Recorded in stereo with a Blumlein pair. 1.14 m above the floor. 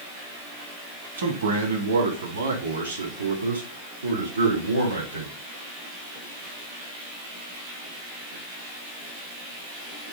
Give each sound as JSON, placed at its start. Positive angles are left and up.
{"t": 1.2, "sound": "a man speaking", "azimuth_deg": -70, "distance_m": 1.8}